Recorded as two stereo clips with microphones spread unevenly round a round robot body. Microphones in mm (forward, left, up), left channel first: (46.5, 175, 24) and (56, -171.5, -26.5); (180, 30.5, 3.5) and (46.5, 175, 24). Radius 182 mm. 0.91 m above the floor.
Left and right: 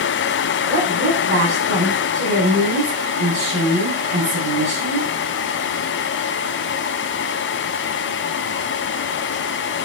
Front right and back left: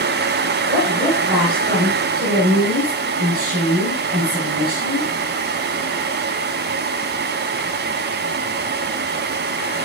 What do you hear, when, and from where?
0.7 s a woman speaking: 150° right, 4 m